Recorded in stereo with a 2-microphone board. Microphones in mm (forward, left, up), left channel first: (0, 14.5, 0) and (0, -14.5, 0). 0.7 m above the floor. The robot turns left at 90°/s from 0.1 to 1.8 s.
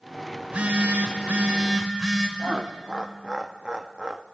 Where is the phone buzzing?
35° right, 2.5 m; by 2.3 s 160° right, 2.5 m.